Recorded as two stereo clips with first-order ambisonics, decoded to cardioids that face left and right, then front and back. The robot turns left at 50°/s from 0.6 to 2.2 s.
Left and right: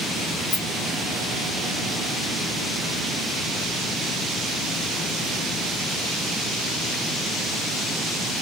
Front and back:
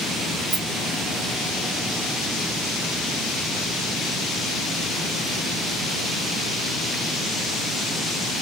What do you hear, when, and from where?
0.5 s a rattle: 125° left, 1.2 m; by 0.7 s 120° left, 1.2 m